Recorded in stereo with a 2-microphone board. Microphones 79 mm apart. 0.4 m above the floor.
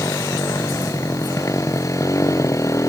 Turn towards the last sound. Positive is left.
turn(degrees=40)  # may be behind; listen again after turning